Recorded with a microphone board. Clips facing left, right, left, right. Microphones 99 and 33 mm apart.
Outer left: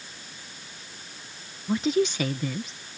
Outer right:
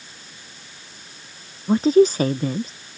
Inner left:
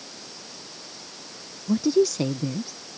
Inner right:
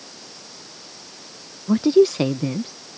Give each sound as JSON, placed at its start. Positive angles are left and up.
{"t": 1.7, "sound": "a woman speaking", "side_deg": -35}